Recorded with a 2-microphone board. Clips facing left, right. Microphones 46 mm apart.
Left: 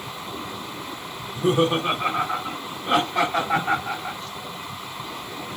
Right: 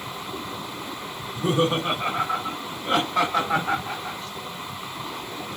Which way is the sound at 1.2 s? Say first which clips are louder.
Left 2 dB; 15° left (ahead or behind).